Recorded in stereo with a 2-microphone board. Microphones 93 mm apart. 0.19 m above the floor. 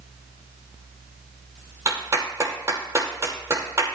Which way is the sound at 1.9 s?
30° right (ahead or behind).